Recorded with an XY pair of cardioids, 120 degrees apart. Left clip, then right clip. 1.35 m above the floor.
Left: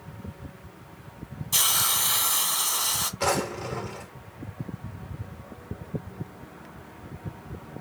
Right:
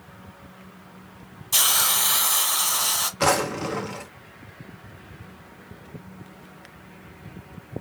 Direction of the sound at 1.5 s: 20° right.